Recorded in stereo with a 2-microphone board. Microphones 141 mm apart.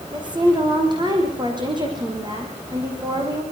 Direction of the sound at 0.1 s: 35° right (ahead or behind).